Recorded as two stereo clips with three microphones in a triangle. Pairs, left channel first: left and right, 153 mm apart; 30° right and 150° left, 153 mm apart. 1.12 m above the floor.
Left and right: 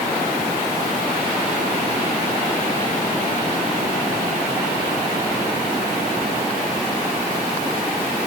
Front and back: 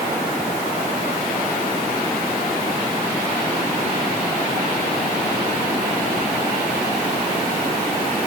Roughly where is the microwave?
I don't hear a microwave.